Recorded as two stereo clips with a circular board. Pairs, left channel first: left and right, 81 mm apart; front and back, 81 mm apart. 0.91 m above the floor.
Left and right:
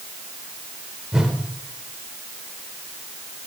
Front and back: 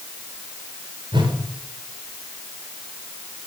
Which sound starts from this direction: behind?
A whoosh, at 1.1 s.